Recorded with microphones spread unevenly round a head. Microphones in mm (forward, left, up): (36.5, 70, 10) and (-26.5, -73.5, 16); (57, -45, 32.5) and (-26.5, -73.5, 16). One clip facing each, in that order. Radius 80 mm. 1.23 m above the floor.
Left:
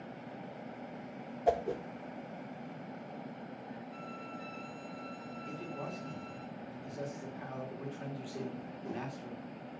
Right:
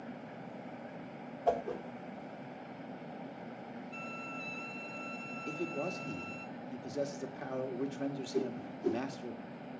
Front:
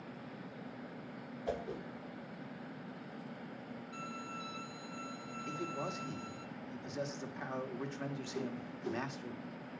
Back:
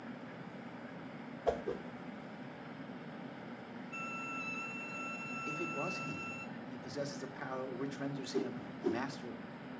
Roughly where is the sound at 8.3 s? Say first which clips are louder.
Right 5 dB, back 3 dB; behind right.